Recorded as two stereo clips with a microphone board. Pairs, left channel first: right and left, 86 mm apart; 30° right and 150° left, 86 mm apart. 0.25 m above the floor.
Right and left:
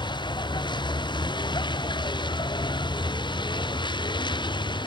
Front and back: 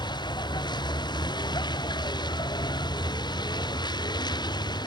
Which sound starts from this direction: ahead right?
A vehicle, at 0.0 s.